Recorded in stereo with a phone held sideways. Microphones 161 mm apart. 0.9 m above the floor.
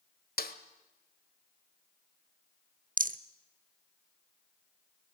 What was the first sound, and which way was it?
A snare drum, 70° left (ahead or behind).